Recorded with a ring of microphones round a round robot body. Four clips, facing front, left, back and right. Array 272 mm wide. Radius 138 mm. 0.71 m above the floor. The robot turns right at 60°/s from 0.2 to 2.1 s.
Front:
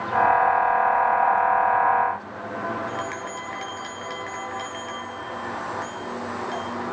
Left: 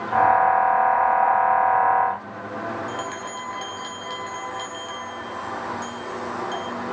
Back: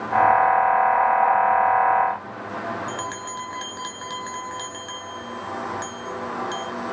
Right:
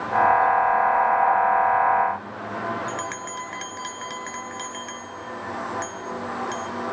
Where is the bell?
140° right, 0.8 m.